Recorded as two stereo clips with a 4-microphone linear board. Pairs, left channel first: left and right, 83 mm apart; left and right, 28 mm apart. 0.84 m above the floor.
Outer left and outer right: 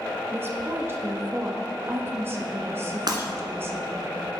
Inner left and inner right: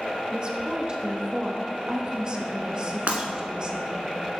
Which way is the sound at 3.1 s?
55° right (ahead or behind).